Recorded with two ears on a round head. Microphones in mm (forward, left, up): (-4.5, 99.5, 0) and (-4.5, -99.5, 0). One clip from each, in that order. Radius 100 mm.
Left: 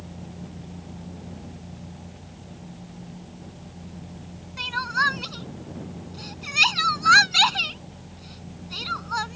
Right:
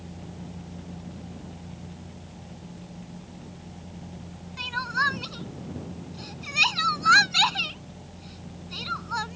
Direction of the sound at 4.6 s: 10° left (ahead or behind).